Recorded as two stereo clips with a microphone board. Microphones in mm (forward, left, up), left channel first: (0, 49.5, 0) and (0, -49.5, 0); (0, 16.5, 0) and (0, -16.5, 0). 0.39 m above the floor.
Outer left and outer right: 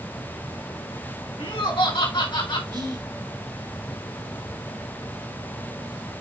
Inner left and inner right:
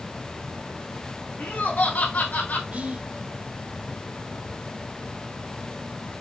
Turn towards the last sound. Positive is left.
turn(degrees=-50)  # may be behind; listen again after turning